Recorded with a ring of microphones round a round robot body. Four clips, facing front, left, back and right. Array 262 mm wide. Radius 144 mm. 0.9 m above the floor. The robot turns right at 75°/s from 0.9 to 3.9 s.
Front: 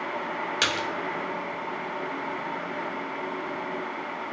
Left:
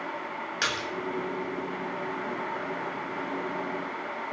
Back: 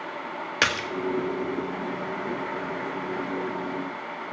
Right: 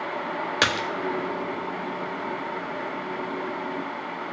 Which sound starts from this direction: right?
A splash, at 0.6 s.